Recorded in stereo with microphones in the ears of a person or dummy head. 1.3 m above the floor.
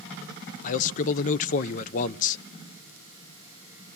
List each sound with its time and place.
0.6 s a man speaking: 45° left (ahead or behind), 0.6 m